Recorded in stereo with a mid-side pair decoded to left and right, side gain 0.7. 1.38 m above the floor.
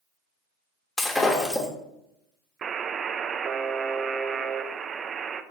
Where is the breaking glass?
15° left, 2.5 m.